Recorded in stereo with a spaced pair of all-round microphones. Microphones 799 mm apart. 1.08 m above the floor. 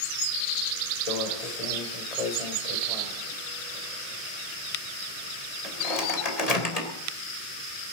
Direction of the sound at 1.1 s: 50° left (ahead or behind).